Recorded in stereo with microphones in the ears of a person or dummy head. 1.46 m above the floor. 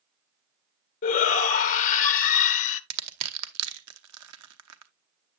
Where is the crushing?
85° right, 0.9 m.